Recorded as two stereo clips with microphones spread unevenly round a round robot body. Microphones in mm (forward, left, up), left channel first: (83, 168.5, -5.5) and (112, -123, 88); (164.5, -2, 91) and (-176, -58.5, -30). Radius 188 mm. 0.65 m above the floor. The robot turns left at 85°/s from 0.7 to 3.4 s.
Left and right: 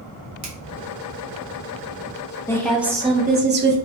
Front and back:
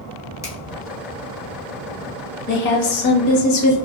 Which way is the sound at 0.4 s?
100° right.